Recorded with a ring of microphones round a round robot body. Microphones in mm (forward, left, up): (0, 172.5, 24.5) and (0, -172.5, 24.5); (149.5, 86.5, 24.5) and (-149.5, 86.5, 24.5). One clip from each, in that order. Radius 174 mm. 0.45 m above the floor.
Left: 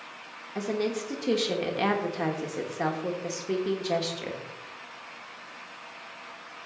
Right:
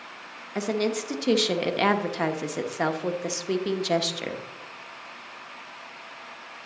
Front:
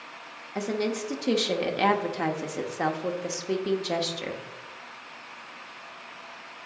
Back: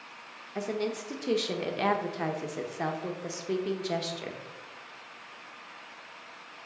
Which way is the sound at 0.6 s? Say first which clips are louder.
Right 3 dB, front 3 dB; 75° right.